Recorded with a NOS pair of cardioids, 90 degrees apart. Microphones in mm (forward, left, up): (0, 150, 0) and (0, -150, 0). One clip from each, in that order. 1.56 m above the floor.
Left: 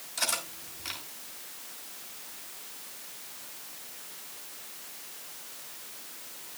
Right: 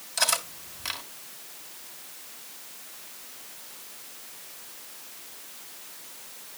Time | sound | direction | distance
0.2 | cutlery clinking | 45° right | 3.5 m